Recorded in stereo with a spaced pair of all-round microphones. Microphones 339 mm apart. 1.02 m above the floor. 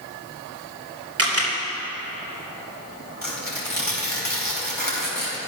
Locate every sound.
1.2 s a camera shutter: 45° right (ahead or behind), 3 m
3.2 s tearing paper: 70° left (ahead or behind), 3.5 m